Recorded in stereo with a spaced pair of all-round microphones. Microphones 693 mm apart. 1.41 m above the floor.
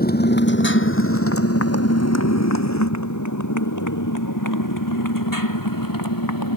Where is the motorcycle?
10° left (ahead or behind); by 6.6 s 25° left (ahead or behind).